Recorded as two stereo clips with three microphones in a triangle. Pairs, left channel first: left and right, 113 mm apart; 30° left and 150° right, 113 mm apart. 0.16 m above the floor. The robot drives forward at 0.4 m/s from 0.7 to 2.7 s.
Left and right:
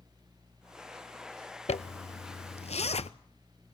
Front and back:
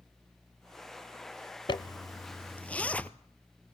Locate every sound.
1.7 s a zipper: 75° left, 0.7 m; by 3.1 s 105° left, 0.7 m